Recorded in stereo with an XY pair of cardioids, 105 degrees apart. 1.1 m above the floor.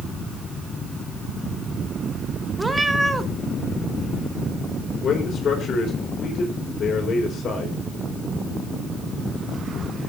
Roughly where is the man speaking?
Ahead left.